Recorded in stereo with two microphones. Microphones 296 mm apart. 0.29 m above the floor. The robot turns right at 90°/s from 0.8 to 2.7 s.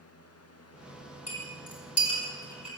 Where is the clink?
60° left (ahead or behind), 5 m; by 2.7 s 10° right (ahead or behind), 5 m.